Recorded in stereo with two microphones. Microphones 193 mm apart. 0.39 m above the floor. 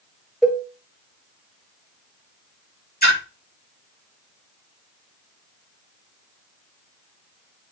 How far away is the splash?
About 4 m.